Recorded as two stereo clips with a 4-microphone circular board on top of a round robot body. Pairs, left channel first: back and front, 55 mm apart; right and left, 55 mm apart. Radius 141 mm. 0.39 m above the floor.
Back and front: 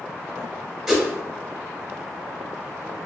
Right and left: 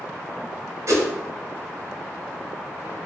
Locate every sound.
0.9 s a whoosh: 80° left, 0.9 m